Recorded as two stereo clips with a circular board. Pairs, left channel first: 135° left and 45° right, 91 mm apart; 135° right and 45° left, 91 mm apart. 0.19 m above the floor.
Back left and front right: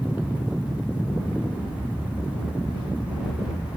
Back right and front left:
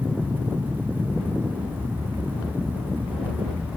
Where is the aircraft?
95° left.